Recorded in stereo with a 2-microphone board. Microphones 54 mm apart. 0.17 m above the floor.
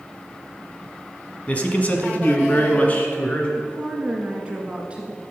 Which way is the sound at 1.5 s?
25° left (ahead or behind).